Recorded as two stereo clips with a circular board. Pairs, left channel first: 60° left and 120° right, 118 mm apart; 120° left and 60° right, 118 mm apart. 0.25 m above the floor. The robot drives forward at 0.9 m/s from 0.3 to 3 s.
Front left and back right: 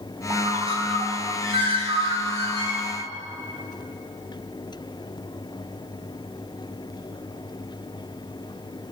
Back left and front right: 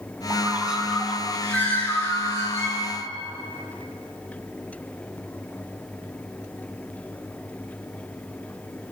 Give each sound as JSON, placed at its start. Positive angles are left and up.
{"t": 0.3, "sound": "a bird", "azimuth_deg": -105, "distance_m": 0.7}